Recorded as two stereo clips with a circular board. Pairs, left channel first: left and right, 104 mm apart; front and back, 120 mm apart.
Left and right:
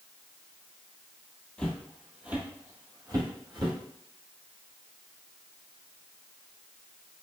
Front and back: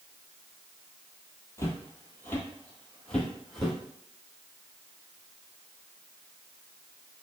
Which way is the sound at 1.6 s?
25° left.